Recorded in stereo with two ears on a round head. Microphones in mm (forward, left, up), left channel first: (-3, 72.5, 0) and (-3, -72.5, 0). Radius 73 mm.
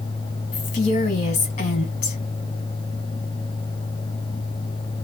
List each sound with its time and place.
0.5 s a woman speaking: 45° left (ahead or behind), 1.6 m